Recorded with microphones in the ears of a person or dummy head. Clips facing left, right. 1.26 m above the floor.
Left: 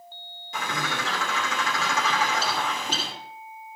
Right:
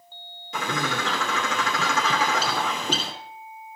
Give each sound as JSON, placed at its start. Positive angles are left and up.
{"t": 0.5, "sound": "a bird", "side_deg": -65, "distance_m": 3.0}